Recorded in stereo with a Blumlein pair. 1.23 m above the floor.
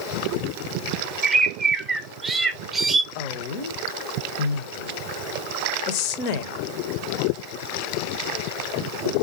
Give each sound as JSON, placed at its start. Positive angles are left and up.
{"t": 1.2, "sound": "a bird", "azimuth_deg": -10, "distance_m": 0.7}
{"t": 3.1, "sound": "a woman speaking", "azimuth_deg": 45, "distance_m": 0.8}